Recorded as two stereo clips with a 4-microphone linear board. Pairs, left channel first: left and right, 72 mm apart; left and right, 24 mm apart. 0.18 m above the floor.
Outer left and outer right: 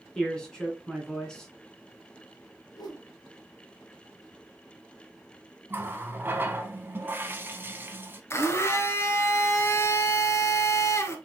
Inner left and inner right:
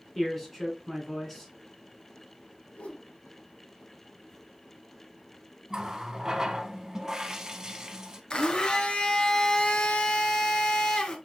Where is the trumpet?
I don't hear a trumpet.